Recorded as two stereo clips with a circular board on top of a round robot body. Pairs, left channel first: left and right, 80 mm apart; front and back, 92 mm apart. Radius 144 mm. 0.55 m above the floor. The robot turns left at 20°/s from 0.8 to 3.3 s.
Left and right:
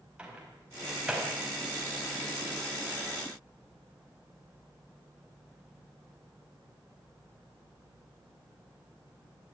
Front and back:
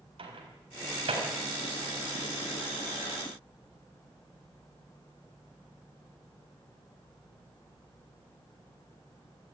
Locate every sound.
0.2 s a microwave: 165° right, 4.5 m; by 1.3 s 175° right, 4.5 m